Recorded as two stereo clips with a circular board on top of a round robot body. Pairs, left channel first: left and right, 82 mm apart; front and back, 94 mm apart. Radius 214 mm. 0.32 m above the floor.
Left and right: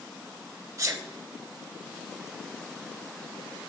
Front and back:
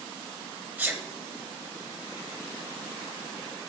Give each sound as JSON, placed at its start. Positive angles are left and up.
{"t": 0.8, "sound": "a sneeze", "azimuth_deg": -115, "distance_m": 1.2}